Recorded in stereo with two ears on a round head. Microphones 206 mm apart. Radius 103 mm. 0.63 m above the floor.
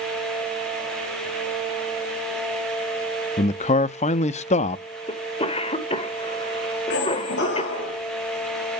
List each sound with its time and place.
3.4 s a man speaking: 30° left (ahead or behind), 0.5 m
5.1 s a cough: 25° left (ahead or behind), 1.9 m
6.9 s a squeak: 55° left (ahead or behind), 4 m